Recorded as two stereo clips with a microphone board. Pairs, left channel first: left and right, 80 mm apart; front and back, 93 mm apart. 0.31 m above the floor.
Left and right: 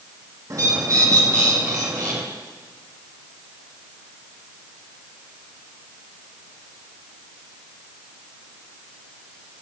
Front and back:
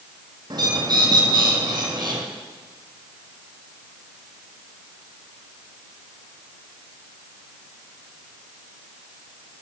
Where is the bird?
135° right, 2 m.